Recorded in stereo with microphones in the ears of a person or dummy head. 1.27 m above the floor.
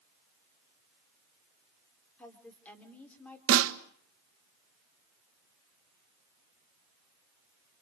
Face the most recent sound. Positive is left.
turn(degrees=-70)  # may be behind; listen again after turning